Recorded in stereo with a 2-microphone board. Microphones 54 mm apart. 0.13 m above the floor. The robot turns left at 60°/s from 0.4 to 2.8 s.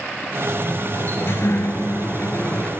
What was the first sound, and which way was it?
A sliding door, 160° left.